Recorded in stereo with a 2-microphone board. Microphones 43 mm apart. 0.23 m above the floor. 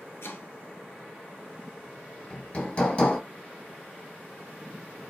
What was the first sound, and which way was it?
Chopping, 85° left.